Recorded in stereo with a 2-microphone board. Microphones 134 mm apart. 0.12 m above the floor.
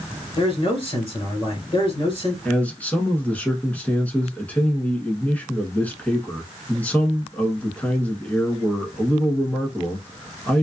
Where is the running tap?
I don't hear a running tap.